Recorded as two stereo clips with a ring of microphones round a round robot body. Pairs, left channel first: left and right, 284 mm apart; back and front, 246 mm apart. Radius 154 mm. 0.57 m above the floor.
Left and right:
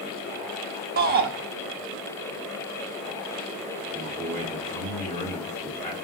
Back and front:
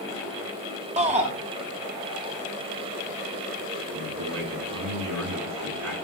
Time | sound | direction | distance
1.0 | a shout | 50° right | 1.1 m
3.9 | a man speaking | 10° left | 7 m